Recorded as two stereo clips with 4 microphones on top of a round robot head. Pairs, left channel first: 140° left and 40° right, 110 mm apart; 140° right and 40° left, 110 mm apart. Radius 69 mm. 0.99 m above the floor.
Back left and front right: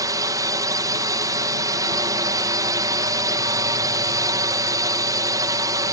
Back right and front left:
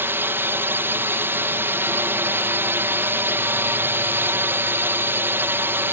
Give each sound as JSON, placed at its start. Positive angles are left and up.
{"t": 0.0, "sound": "a drone", "azimuth_deg": -15}